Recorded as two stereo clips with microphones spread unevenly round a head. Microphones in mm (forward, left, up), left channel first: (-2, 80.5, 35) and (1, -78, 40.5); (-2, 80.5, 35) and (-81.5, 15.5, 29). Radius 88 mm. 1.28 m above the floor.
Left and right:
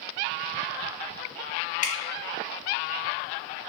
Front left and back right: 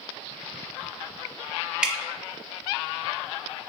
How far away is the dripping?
About 0.6 m.